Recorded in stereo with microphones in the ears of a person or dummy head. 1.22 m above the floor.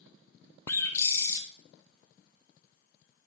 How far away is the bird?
About 1.0 m.